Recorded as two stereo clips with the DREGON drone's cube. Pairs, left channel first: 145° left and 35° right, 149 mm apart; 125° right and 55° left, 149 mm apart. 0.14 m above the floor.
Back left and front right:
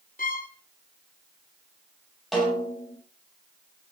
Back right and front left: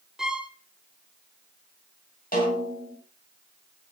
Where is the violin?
140° left, 0.9 m.